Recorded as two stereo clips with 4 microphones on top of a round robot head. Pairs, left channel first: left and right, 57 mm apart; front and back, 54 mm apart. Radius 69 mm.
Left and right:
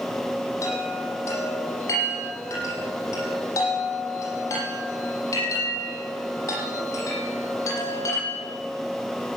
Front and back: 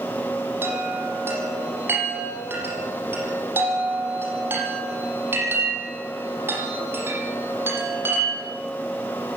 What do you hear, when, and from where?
0.6 s a chime: 135° left, 10 m